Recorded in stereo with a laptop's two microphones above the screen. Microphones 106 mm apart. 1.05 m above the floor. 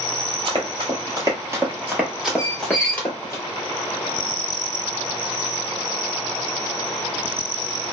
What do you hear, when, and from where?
0.5 s running footsteps: 45° right (ahead or behind), 1.4 m; by 3.4 s 25° left (ahead or behind), 1.4 m
2.4 s a squeak: 5° right (ahead or behind), 1.2 m